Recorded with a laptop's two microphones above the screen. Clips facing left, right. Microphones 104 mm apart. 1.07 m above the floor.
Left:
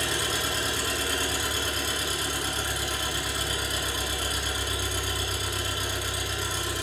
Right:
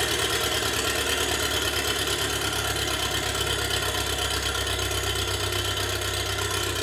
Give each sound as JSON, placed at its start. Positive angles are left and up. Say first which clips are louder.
{"t": 0.0, "sound": "an engine running", "louder": "right 3 dB", "side_deg": -80, "distance_m": 3.0}